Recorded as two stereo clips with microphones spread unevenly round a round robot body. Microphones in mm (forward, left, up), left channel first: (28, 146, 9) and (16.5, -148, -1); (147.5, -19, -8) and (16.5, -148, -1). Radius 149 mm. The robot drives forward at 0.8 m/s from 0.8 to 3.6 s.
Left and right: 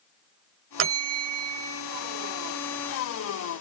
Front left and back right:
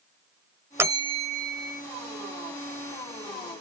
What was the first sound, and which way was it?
A bell, 60° right.